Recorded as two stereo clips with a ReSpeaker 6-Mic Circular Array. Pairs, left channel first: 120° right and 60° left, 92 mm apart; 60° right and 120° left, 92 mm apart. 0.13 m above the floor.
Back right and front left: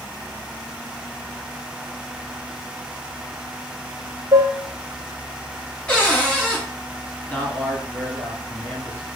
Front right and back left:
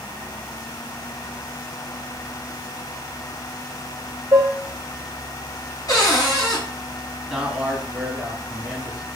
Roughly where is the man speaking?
Behind.